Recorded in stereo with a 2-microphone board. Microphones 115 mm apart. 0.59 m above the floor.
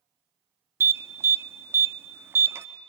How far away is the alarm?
About 0.5 m.